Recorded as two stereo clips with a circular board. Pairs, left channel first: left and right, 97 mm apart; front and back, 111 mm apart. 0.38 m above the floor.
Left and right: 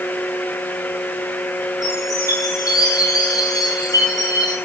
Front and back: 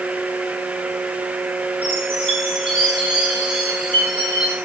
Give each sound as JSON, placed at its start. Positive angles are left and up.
{"t": 1.8, "sound": "a chime", "azimuth_deg": 145, "distance_m": 6.5}